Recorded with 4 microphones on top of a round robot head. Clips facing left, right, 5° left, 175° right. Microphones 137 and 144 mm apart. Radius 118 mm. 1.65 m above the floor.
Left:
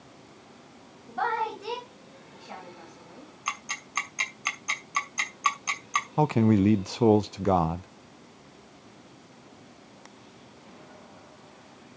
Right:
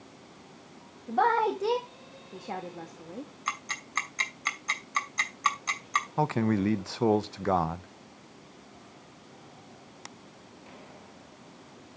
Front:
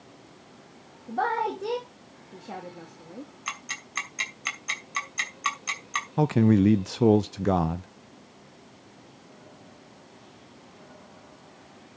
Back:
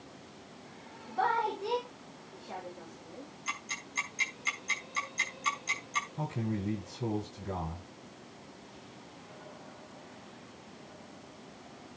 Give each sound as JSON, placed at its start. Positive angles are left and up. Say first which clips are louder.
{"t": 1.1, "sound": "a woman speaking", "louder": "right 4 dB, front 4 dB", "azimuth_deg": -50, "distance_m": 2.5}
{"t": 3.5, "sound": "ticking", "louder": "even, front 2 dB", "azimuth_deg": 15, "distance_m": 2.5}
{"t": 6.2, "sound": "a man speaking", "louder": "left 5 dB, front 16 dB", "azimuth_deg": 20, "distance_m": 0.5}